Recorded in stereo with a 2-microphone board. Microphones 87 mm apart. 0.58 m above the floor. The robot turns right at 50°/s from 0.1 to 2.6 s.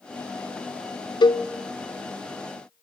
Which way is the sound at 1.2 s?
55° left (ahead or behind).